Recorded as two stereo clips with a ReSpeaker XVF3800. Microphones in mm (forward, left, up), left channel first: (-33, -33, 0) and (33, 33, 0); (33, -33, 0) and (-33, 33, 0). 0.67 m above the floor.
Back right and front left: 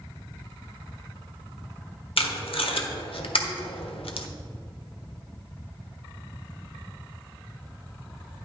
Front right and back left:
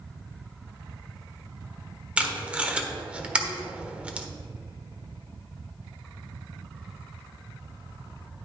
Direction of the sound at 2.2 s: 145° right.